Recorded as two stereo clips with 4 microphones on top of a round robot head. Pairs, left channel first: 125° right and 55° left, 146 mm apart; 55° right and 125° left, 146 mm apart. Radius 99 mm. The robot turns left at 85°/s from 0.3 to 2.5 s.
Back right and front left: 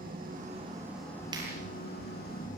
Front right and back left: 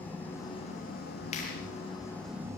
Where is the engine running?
25° left, 8.5 m; by 2.6 s 160° right, 8.5 m.